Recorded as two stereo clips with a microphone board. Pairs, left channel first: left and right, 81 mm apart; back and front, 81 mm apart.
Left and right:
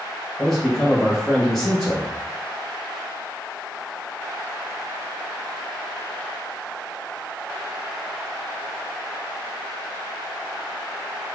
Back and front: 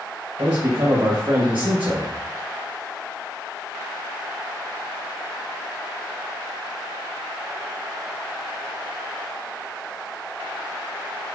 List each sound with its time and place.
0.4 s a man speaking: 5° left, 1.3 m